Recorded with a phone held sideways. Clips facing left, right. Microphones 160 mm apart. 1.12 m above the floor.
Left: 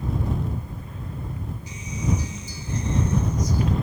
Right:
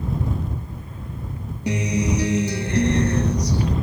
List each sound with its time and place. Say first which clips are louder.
1.7 s a guitar: right 7 dB; 75° right (ahead or behind)